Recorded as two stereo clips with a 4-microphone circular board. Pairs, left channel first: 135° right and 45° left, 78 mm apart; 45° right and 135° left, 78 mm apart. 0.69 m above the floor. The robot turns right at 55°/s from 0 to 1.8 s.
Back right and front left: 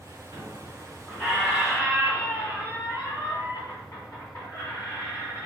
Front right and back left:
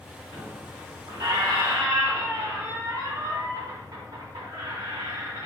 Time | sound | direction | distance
0.3 | a squeak | 90° left | 2.5 m